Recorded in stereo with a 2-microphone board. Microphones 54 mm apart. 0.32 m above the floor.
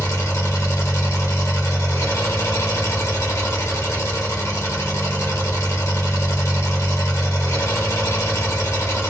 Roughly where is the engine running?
Left.